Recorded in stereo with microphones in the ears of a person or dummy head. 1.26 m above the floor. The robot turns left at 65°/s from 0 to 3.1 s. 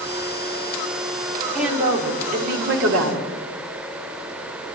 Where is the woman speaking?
Straight ahead, 4.5 m; by 3.3 s 100° right, 4.5 m.